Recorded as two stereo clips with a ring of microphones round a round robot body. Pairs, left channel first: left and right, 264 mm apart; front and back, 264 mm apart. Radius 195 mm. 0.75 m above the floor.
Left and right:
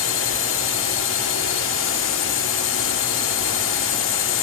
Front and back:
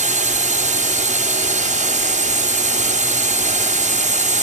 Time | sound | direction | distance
0.0 | a drone | 125° left | ?